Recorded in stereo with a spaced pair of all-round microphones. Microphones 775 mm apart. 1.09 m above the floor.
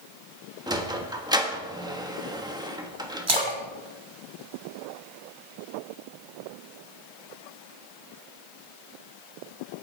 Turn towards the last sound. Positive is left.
turn(degrees=-40)  # may be behind; listen again after turning